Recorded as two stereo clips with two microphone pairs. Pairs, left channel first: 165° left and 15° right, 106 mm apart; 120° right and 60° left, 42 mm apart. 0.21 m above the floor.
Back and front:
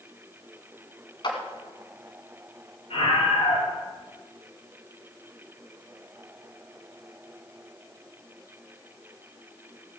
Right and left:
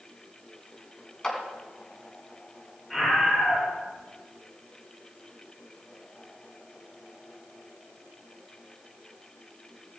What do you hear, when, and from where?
1.2 s a clap: 170° left, 1.9 m
2.9 s a scream: 150° left, 4 m